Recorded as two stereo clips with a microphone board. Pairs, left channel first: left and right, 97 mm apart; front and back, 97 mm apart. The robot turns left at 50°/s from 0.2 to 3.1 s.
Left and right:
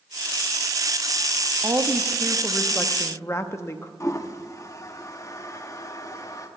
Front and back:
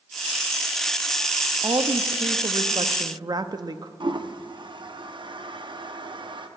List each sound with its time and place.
1.6 s a woman speaking: 140° right, 0.6 m; by 3.9 s 145° left, 0.6 m
4.0 s a toilet flushing: 145° left, 0.7 m